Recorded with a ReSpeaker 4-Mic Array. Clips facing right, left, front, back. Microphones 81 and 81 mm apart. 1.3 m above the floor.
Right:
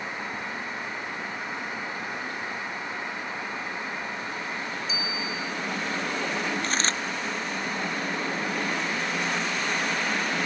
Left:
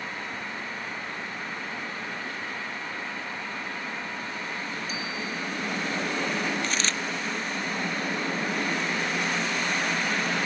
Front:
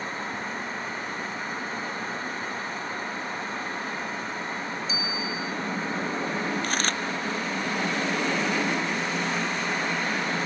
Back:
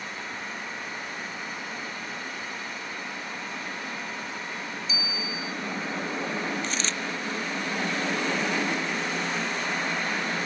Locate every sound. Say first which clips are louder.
4.9 s a bicycle bell: right 1 dB, front 3 dB; 50° left
6.6 s a dropped coin: right 1 dB, front 3 dB; 40° right